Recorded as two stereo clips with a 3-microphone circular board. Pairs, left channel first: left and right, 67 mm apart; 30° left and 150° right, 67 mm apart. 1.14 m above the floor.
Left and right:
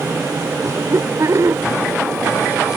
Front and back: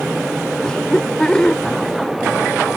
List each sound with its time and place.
0.6 s laughter: 50° right